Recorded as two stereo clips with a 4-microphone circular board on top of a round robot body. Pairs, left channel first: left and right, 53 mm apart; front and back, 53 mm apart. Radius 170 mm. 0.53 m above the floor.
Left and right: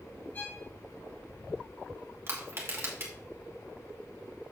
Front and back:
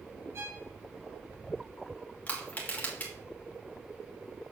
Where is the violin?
145° left, 4 m.